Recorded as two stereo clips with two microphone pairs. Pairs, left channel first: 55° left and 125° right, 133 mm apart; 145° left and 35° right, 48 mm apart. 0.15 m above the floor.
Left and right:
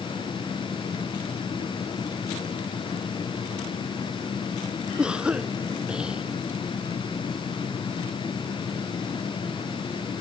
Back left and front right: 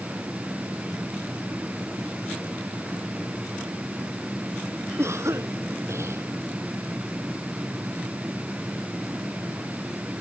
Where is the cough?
40° right.